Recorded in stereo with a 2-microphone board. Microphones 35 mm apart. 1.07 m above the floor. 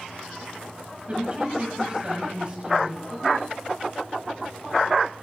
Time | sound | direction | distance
1.1 | a woman speaking | 30° right (ahead or behind) | 7.5 m